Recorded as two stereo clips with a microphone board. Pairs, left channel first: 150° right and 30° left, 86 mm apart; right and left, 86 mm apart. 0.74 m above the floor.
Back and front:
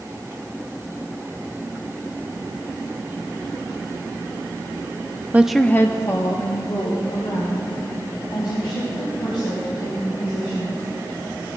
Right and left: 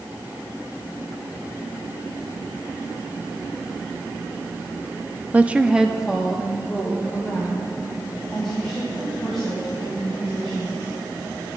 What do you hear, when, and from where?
5.3 s a woman speaking: 50° left, 0.7 m; by 10.8 s 175° right, 7 m